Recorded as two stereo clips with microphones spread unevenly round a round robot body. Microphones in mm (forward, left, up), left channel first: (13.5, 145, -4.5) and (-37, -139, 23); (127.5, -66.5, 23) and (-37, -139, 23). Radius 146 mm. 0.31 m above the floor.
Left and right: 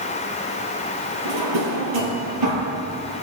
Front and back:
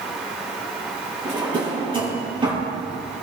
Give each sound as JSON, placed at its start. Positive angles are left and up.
{"t": 1.2, "sound": "a drawer", "azimuth_deg": -95, "distance_m": 5.0}